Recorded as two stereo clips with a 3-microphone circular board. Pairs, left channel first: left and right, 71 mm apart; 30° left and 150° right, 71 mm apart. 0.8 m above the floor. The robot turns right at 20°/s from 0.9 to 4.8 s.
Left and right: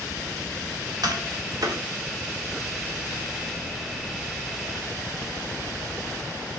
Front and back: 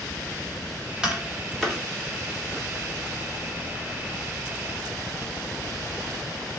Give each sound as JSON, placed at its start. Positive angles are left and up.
{"t": 1.0, "sound": "tapping", "azimuth_deg": -70, "distance_m": 1.0}